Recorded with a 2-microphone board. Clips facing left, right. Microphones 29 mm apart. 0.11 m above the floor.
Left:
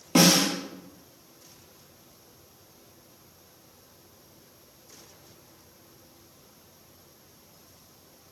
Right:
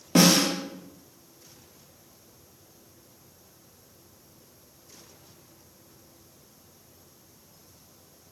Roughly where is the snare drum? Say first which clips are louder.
Even; centre.